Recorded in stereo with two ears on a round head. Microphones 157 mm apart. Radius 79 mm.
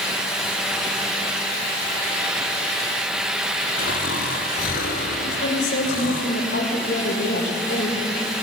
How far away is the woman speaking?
About 6 m.